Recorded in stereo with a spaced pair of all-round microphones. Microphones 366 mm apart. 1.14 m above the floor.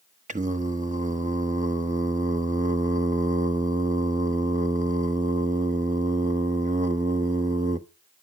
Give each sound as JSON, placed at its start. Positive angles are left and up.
{"t": 0.3, "sound": "singing", "side_deg": -20, "distance_m": 1.0}